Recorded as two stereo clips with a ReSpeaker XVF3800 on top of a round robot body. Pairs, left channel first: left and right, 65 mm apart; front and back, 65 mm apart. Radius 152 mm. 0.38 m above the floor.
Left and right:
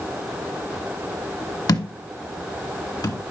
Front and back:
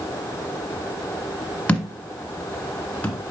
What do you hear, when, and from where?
1.7 s a thud: 75° left, 1.6 m